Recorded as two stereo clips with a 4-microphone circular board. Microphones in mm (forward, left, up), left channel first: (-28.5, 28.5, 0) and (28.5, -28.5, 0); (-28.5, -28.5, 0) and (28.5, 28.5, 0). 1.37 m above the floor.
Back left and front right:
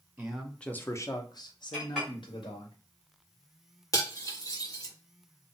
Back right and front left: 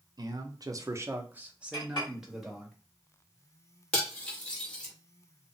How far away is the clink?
About 1.9 m.